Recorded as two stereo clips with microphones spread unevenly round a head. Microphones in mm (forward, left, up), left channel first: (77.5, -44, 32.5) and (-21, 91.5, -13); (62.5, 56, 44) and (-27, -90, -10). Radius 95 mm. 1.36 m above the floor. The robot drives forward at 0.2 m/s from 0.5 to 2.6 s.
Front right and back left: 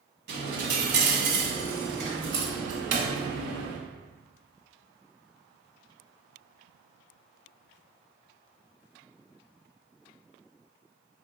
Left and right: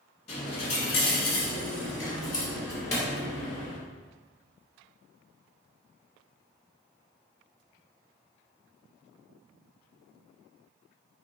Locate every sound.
0.3 s a dropped coin: 95° left, 1.2 m; by 3.8 s 120° left, 1.3 m